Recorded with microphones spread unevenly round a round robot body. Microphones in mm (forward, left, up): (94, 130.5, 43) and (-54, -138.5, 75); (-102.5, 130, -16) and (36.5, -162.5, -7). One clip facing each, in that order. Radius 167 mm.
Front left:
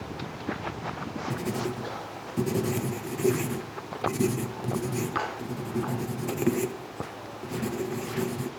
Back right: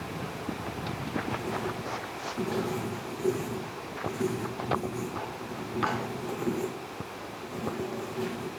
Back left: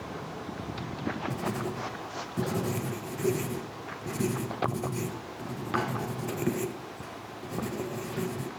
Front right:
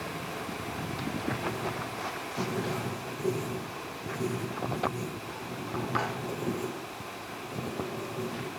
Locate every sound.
1.3 s writing: 75° left, 0.8 m